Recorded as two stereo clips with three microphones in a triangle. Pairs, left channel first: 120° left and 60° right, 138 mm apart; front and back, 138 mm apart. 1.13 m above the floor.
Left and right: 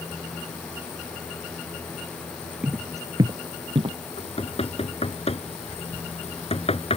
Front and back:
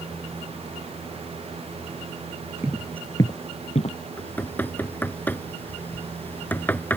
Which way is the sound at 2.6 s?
130° right.